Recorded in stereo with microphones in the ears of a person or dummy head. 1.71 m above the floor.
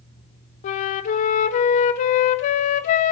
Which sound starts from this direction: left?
A flute, at 0.6 s.